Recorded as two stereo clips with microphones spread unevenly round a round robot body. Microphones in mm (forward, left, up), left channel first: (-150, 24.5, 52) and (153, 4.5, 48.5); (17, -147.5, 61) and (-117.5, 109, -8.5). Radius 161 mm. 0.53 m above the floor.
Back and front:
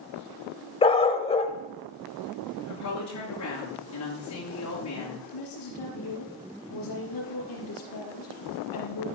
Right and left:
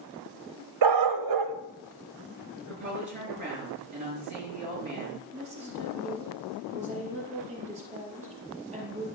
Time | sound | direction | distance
0.8 | a dog barking | 105° left | 0.9 m
2.7 | a woman speaking | 140° left | 8 m
5.3 | a woman speaking | straight behind | 4.5 m